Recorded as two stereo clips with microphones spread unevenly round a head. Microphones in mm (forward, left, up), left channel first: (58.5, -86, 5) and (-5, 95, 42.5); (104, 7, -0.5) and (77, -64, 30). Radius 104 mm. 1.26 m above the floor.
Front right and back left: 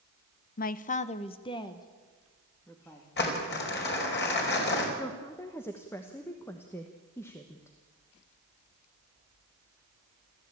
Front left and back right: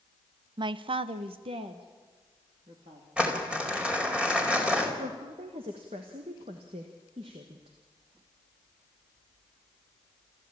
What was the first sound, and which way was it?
A man speaking, 75° right.